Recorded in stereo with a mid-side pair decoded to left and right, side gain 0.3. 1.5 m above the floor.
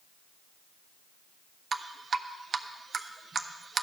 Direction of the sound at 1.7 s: 60° right.